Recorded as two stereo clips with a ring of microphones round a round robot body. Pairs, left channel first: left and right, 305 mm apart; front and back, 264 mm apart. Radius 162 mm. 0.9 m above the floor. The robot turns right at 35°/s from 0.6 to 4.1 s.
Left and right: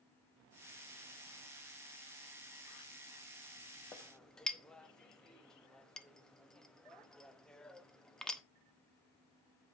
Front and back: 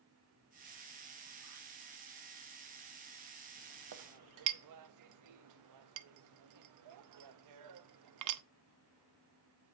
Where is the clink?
170° left, 0.8 m; by 8.4 s straight behind, 0.8 m.